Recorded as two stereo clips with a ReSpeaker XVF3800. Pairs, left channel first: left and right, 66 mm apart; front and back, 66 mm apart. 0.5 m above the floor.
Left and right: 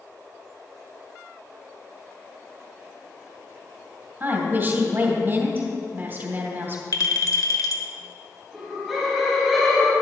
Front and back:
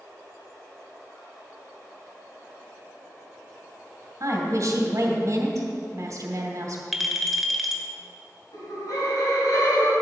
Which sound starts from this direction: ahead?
Laughter, at 8.5 s.